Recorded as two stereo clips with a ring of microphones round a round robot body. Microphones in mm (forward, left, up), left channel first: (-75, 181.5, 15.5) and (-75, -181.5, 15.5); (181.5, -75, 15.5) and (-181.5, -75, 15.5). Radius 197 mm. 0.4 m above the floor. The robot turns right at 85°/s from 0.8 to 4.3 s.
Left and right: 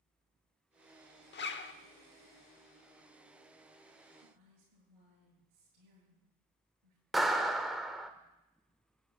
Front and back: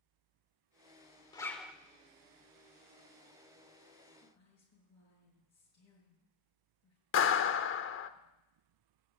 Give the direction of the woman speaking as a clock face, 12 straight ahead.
2 o'clock.